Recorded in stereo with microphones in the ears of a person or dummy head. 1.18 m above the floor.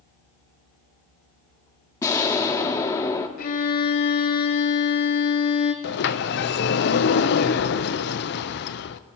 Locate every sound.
2.0 s an explosion: 15° left (ahead or behind), 1.2 m
3.4 s a violin: 50° left (ahead or behind), 1.3 m
5.8 s a sliding door: 55° left (ahead or behind), 0.7 m